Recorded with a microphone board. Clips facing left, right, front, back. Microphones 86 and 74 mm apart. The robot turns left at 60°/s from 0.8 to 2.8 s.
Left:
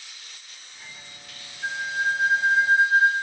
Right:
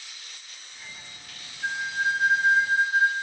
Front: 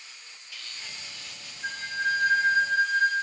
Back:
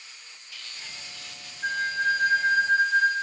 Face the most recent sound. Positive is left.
turn(degrees=95)